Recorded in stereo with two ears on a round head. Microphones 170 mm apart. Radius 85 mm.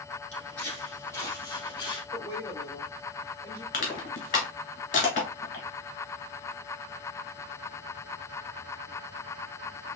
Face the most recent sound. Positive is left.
turn(degrees=40)  # may be behind; listen again after turning